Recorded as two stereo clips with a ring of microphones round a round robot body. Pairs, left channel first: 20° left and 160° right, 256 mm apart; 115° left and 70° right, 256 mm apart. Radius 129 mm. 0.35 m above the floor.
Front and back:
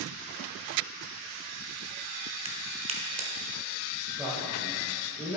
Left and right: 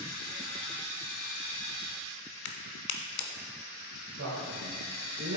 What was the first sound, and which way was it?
A crack, 135° left.